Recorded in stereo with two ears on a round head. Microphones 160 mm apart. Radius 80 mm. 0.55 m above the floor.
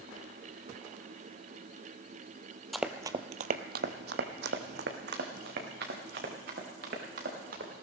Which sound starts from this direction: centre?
Running footsteps, at 2.7 s.